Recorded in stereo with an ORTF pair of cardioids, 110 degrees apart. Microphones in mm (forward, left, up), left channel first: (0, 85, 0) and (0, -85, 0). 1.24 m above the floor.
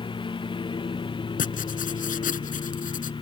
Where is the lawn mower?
30° left.